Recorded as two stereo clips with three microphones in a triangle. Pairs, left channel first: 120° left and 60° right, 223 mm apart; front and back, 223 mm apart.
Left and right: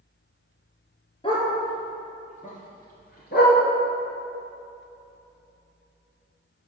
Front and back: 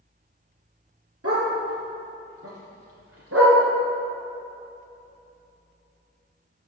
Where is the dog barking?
175° right, 2.5 m; by 3.6 s 160° left, 2.0 m.